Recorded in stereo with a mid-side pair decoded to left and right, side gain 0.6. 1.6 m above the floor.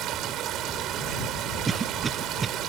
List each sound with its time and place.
0.0 s running water: 60° right
1.7 s a cough: 25° right